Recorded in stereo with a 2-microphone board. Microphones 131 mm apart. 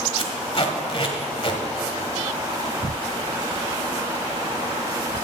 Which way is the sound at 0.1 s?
45° left (ahead or behind).